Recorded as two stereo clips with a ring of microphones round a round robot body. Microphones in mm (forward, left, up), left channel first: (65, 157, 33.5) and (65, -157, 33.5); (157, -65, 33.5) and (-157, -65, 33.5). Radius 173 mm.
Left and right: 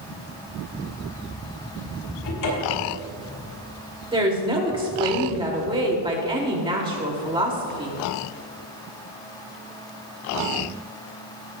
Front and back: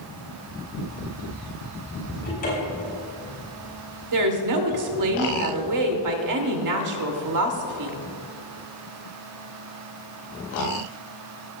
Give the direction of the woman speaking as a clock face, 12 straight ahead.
5 o'clock.